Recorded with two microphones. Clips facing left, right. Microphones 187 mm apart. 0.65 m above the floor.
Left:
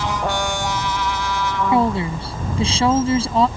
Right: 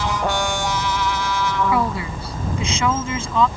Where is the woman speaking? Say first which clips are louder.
Left 4 dB; 25° left (ahead or behind); by 3.5 s 35° left (ahead or behind).